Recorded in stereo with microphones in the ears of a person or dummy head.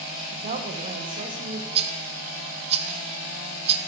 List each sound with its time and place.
0.3 s a woman speaking: 40° right (ahead or behind), 1.1 m
1.8 s a rattle: 40° right (ahead or behind), 0.7 m